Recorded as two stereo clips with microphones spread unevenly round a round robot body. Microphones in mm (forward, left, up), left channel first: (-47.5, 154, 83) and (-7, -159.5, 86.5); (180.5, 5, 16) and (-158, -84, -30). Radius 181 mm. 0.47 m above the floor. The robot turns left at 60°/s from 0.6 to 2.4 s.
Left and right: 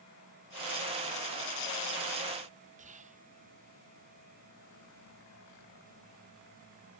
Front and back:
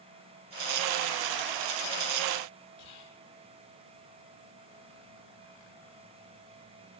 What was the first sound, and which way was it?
Whispering, 20° right.